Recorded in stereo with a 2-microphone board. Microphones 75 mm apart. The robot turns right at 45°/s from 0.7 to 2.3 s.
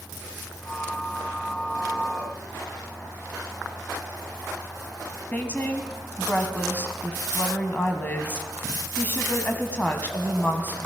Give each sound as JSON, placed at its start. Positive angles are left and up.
{"t": 5.3, "sound": "a woman speaking", "side_deg": 25, "distance_m": 1.3}